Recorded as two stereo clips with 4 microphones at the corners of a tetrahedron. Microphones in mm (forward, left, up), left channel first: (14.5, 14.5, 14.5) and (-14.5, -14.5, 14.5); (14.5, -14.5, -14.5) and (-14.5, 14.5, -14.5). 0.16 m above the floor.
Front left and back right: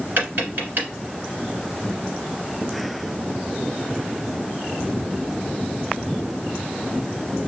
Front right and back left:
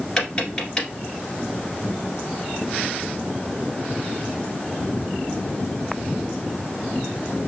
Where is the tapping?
115° right, 1.7 m.